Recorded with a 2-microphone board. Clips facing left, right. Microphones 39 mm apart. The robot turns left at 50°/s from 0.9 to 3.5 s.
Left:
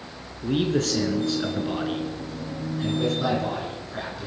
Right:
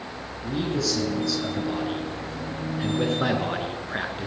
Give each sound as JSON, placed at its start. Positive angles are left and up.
{"t": 0.4, "sound": "a man speaking", "azimuth_deg": 65, "distance_m": 3.0}